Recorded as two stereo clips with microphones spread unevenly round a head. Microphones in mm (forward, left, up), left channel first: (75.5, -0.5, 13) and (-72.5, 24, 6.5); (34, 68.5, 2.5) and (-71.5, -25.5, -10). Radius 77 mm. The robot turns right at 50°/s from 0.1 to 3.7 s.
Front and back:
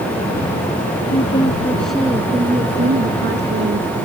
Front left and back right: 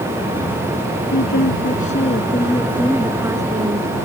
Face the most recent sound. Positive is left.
turn(degrees=170)